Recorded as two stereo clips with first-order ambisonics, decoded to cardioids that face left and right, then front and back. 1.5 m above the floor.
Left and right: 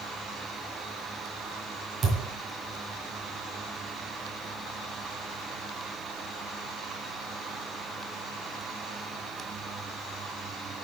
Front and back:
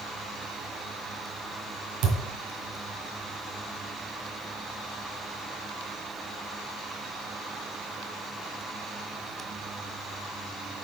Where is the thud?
160° right, 2.5 m.